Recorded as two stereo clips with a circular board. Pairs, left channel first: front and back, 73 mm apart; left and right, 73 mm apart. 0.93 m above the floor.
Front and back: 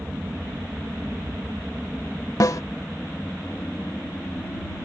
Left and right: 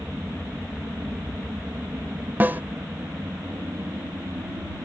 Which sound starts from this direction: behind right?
An aircraft, at 0.0 s.